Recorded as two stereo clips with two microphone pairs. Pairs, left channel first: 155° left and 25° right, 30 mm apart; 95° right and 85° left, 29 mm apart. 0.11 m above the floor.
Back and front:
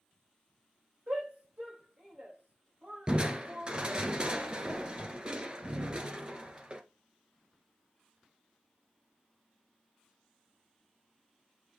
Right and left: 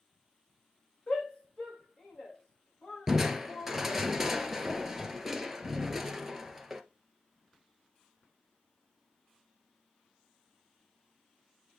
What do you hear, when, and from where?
1.1 s a shout: 50° right, 7.5 m
3.1 s crushing: 15° left, 1.2 m